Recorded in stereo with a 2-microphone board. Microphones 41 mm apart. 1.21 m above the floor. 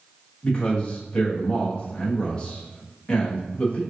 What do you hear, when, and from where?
0.4 s a man speaking: 20° left (ahead or behind), 1.3 m